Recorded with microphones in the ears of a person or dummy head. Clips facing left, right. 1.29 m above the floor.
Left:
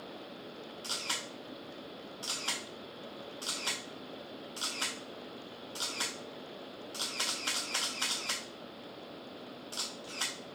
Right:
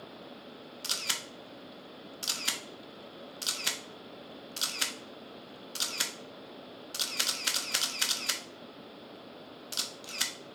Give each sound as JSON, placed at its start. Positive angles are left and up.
{"t": 0.8, "sound": "a camera shutter", "side_deg": -20, "distance_m": 0.6}